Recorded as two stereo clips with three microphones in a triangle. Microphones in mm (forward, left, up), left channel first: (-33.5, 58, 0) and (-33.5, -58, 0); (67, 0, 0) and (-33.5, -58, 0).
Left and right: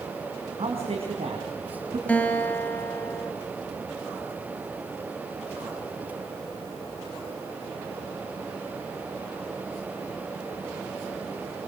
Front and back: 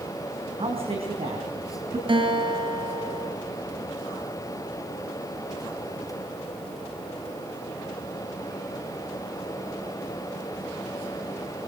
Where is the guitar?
170° left, 3 m.